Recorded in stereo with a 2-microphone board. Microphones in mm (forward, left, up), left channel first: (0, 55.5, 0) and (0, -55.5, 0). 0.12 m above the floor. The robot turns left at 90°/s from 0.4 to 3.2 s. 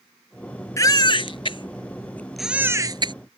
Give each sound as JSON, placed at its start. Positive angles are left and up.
{"t": 0.8, "sound": "a baby crying", "side_deg": 30}